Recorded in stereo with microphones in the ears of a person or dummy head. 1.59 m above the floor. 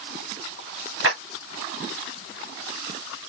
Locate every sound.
1.0 s a clap: 85° right, 3.5 m